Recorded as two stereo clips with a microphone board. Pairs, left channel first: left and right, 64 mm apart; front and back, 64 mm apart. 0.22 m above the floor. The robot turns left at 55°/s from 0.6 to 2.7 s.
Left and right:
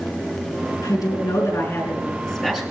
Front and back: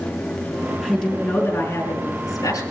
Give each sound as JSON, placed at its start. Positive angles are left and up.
{"t": 0.8, "sound": "a woman speaking", "azimuth_deg": 95, "distance_m": 5.0}